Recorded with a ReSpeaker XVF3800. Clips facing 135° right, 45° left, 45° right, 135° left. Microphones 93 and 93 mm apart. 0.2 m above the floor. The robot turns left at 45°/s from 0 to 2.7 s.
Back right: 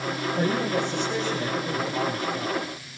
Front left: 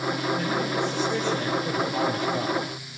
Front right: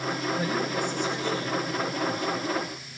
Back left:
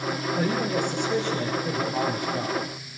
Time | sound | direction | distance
0.4 | a man speaking | 170° left | 5.5 m